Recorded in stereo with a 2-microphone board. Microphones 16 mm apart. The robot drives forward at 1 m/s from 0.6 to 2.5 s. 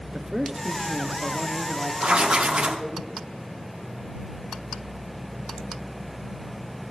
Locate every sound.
0.1 s a man speaking: 40° right (ahead or behind), 1.5 m; by 3.0 s 20° right (ahead or behind), 3 m
2.0 s writing: 70° right (ahead or behind), 1.9 m; by 2.8 s 65° right (ahead or behind), 2.0 m